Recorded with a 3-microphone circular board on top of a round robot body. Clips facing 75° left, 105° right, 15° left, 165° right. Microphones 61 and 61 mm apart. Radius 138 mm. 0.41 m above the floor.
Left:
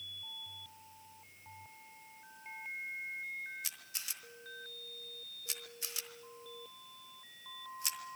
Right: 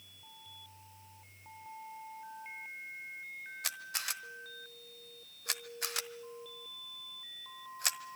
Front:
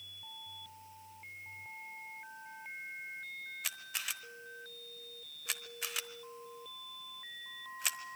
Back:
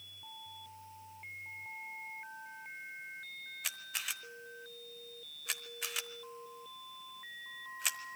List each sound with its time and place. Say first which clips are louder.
3.6 s a camera shutter: right 8 dB, back 2 dB; 75° right, 1.2 m